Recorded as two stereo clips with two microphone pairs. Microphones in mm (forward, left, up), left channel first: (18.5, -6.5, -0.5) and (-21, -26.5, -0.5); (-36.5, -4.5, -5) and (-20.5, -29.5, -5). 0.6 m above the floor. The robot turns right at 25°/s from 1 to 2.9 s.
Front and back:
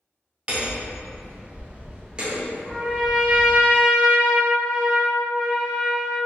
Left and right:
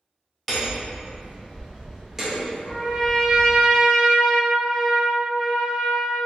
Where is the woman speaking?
I don't hear a woman speaking.